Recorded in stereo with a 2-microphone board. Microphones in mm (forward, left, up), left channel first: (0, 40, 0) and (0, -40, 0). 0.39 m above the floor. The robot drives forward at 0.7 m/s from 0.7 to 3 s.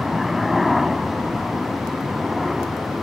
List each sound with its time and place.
0.0 s a helicopter: 5° right (ahead or behind)